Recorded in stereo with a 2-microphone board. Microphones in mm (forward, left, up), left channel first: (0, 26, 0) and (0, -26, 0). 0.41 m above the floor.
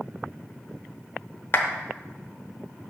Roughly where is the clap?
Left.